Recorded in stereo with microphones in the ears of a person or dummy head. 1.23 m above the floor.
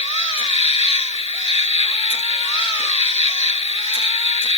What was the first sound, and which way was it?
An insect, 25° left (ahead or behind).